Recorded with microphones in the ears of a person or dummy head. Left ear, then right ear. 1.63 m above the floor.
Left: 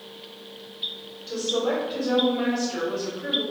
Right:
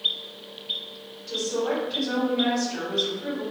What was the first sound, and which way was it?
A woman speaking, 20° left (ahead or behind).